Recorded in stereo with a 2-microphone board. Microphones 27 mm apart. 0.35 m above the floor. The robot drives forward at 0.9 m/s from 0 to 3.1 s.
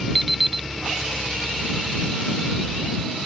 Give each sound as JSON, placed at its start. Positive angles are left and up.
{"t": 0.1, "sound": "an alarm clock", "side_deg": 0}